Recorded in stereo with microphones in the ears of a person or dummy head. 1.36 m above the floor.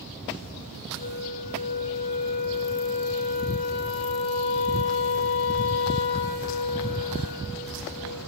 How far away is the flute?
About 2.5 m.